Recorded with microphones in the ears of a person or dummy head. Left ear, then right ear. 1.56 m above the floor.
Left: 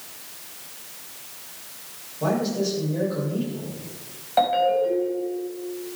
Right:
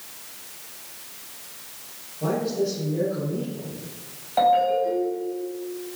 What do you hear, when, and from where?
2.2 s a man speaking: 65° left (ahead or behind), 7 m
4.4 s a ringtone: 15° left (ahead or behind), 5 m